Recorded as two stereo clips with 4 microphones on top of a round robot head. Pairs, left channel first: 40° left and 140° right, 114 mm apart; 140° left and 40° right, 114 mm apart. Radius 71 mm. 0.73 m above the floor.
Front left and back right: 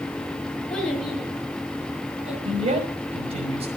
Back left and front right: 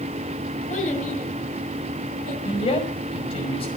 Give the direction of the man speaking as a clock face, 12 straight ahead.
6 o'clock.